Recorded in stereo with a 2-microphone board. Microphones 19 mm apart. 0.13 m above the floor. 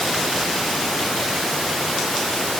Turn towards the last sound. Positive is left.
No sound to turn to.